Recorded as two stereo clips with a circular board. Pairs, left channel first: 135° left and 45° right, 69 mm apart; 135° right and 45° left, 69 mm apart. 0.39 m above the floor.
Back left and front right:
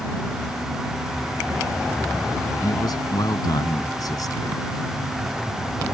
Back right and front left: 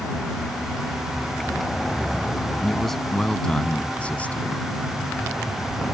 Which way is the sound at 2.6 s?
135° left.